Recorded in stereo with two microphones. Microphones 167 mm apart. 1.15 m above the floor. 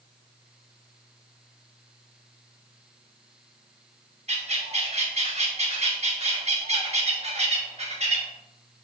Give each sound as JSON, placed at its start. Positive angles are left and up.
{"t": 4.3, "sound": "a bird", "side_deg": -40, "distance_m": 1.1}